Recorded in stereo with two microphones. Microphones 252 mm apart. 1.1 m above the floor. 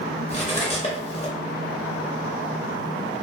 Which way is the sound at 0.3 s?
25° left (ahead or behind).